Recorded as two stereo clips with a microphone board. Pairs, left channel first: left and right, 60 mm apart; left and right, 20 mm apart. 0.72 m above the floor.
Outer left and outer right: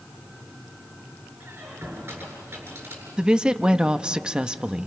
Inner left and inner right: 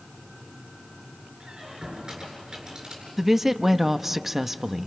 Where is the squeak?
35° right (ahead or behind), 8 m.